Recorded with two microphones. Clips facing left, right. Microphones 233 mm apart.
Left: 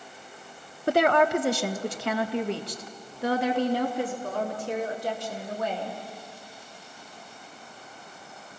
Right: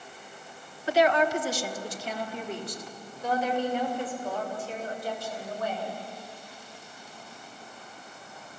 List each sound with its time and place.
0.9 s a woman speaking: 55° left (ahead or behind), 0.7 m; by 6.0 s 75° left (ahead or behind), 4 m